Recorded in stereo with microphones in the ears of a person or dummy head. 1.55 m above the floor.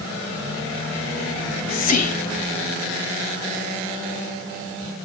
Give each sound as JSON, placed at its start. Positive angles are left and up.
{"t": 1.4, "sound": "whispering", "side_deg": 45, "distance_m": 0.6}